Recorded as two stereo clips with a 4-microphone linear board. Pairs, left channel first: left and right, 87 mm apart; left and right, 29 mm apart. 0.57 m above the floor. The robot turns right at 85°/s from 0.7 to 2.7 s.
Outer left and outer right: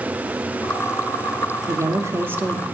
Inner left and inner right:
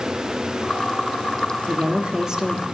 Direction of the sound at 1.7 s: 95° right.